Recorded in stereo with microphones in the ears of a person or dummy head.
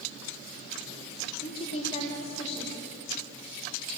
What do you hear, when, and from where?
1.4 s a woman speaking: 35° left (ahead or behind), 4 m